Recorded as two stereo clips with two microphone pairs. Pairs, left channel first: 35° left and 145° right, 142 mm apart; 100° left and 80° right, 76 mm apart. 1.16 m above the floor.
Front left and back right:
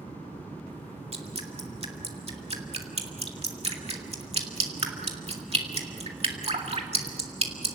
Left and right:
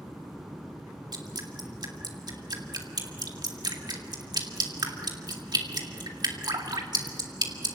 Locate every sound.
1.1 s dripping: 100° right, 2.0 m